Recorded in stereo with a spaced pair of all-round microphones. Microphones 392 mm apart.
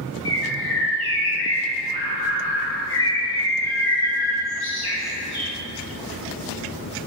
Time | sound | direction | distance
0.2 | a bird | 70° left (ahead or behind) | 0.9 m